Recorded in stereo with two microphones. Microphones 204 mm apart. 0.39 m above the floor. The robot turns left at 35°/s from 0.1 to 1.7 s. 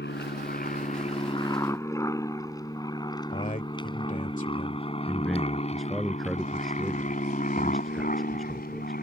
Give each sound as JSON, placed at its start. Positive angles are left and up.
{"t": 0.0, "sound": "an aircraft", "side_deg": 60}
{"t": 3.3, "sound": "a man speaking", "side_deg": 40}
{"t": 5.0, "sound": "a man speaking", "side_deg": 0}